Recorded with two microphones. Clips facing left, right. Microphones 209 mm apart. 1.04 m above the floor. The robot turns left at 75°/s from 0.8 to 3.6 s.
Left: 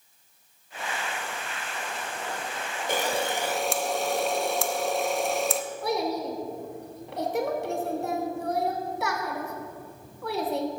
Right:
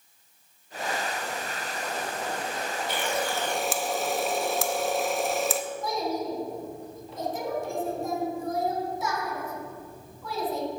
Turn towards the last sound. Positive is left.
turn(degrees=70)  # may be behind; listen again after turning